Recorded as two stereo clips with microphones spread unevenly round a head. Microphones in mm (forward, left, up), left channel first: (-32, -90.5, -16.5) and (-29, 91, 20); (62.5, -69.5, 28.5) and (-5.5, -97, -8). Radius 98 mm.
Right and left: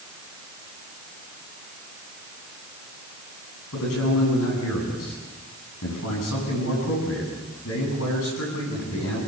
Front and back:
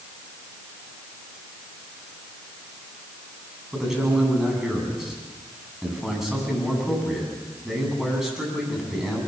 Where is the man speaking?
70° right, 9.5 m.